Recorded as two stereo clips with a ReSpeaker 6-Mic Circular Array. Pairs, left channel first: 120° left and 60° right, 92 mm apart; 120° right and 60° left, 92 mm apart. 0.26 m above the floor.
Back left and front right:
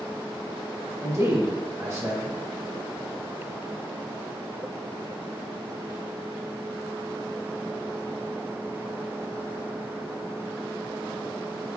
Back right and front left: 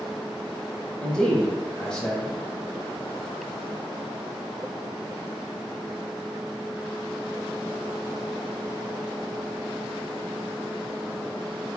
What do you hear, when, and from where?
1.0 s a man speaking: 45° right, 1.2 m